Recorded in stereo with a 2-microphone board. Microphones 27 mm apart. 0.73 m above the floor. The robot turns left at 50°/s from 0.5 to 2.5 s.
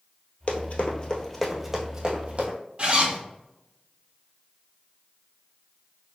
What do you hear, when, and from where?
0.5 s running footsteps: 55° left (ahead or behind), 1.1 m; by 2.6 s 55° right (ahead or behind), 1.5 m
2.8 s a zipper: 50° right (ahead or behind), 2.5 m